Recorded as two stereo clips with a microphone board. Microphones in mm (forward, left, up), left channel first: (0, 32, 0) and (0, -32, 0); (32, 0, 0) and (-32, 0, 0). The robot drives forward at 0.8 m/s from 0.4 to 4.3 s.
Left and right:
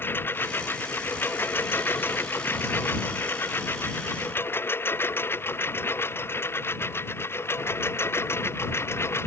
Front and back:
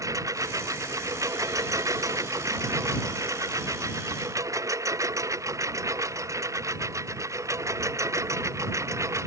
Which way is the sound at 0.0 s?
145° left.